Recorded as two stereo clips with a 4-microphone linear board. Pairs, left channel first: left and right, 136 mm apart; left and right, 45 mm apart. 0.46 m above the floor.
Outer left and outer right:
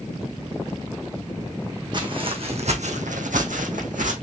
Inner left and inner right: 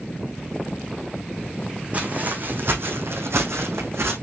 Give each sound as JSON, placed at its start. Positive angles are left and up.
{"t": 1.9, "sound": "footsteps", "side_deg": -35, "distance_m": 2.0}